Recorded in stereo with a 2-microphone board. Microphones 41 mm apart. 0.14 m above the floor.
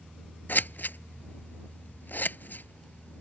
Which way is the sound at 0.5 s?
50° left (ahead or behind).